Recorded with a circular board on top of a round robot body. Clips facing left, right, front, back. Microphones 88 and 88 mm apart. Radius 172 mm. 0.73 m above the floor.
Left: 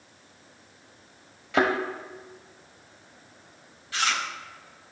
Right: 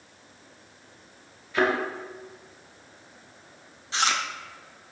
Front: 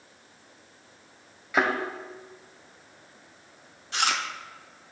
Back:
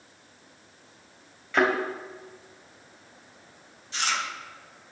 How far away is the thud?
About 2 m.